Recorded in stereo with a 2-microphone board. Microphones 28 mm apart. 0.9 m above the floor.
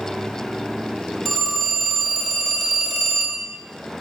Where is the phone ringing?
5° left (ahead or behind), 3.5 m.